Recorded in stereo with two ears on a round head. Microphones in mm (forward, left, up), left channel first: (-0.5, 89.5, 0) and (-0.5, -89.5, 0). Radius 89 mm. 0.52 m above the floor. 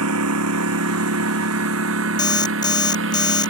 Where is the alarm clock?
20° left (ahead or behind).